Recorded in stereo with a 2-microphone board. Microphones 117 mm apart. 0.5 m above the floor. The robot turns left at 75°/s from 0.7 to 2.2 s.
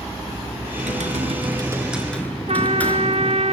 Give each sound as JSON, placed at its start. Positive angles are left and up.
{"t": 0.8, "sound": "typing on a keyboard", "azimuth_deg": -85, "distance_m": 4.0}
{"t": 2.5, "sound": "a trumpet", "side_deg": -60, "distance_m": 0.7}